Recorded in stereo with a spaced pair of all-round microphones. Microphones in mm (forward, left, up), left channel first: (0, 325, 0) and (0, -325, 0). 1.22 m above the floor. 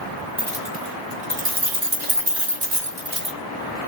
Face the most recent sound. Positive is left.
turn(degrees=-65)  # may be behind; listen again after turning